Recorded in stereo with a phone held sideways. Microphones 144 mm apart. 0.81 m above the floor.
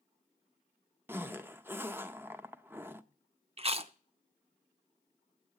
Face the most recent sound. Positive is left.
turn(degrees=-45)  # may be behind; listen again after turning